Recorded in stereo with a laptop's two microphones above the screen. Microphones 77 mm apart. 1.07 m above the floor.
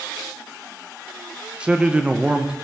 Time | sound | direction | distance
1.6 | a man speaking | 10° right (ahead or behind) | 0.6 m